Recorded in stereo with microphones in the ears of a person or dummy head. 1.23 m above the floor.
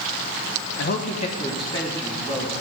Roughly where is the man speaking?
Left.